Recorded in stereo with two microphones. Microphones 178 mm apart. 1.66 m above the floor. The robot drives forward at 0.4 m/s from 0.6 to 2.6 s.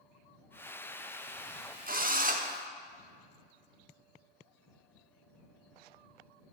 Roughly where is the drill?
Right.